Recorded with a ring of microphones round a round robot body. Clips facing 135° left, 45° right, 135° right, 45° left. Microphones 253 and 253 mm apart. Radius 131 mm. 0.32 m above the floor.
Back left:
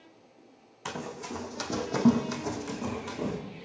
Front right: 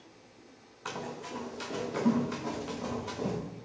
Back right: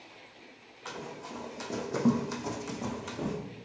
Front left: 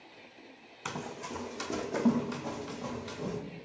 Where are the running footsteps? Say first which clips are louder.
Back left 2 dB, front left 2 dB; 90° left, 1.4 m; by 3.4 s 155° right, 1.8 m.